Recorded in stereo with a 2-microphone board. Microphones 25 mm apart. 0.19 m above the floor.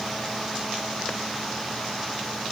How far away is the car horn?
I don't hear a car horn.